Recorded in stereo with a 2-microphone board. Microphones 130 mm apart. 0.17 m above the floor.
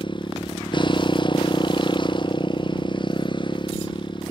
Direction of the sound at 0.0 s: 35° left (ahead or behind).